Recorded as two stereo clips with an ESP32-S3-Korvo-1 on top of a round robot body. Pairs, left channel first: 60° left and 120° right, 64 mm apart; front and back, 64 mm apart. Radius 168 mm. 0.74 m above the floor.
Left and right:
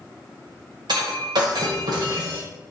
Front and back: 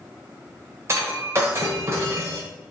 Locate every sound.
0.9 s breaking glass: 130° right, 1.3 m